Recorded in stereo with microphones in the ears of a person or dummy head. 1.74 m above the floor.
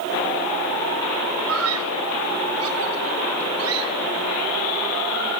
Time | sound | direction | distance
1.5 | a scream | 85° right | ?